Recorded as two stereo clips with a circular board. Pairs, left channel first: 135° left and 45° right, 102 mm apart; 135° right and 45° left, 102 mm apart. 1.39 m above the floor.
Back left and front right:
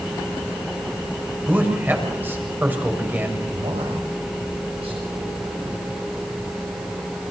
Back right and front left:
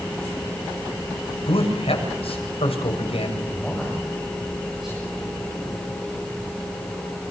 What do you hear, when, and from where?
1.5 s a man speaking: 115° right, 7 m
3.5 s a man speaking: 40° right, 8.5 m